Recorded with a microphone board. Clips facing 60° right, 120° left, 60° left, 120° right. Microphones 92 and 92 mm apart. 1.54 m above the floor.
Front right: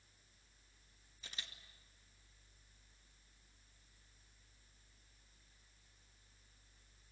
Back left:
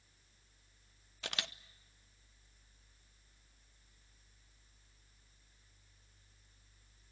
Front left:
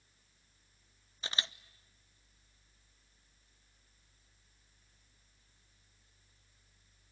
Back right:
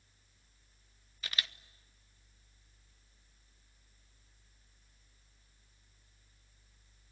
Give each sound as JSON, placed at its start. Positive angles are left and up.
{"t": 1.2, "sound": "a camera shutter", "azimuth_deg": 120, "distance_m": 0.6}